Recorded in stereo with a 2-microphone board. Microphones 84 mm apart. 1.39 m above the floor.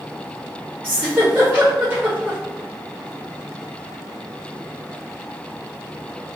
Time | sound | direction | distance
0.8 | a giggle | 25° right (ahead or behind) | 1.4 m